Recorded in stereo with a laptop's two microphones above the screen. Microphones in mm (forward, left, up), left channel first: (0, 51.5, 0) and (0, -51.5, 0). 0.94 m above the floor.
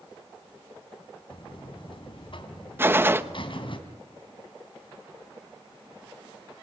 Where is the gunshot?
20° right (ahead or behind), 1.1 m.